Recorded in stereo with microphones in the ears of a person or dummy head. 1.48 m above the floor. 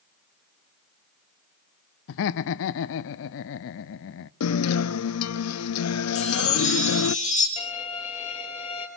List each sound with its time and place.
2.1 s laughter: 65° left (ahead or behind), 0.6 m
4.4 s a guitar: 80° left, 0.7 m
6.2 s a chime: 30° left (ahead or behind), 4.5 m
7.6 s a violin: 35° left (ahead or behind), 4.5 m